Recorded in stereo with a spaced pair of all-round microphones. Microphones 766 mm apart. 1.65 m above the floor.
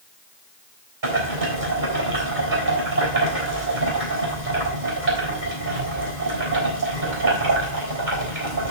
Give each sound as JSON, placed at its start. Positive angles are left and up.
{"t": 1.0, "sound": "boiling", "side_deg": -75, "distance_m": 5.0}